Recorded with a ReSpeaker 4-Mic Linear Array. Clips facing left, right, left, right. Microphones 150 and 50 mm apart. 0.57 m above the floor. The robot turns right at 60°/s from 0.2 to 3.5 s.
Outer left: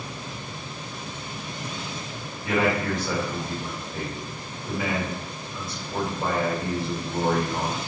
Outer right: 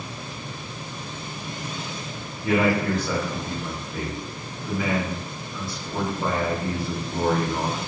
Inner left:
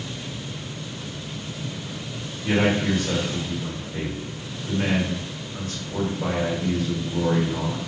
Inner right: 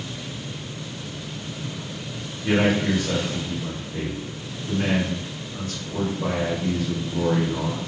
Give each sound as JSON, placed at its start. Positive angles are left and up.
{"t": 2.4, "sound": "a man speaking", "azimuth_deg": -35, "distance_m": 1.9}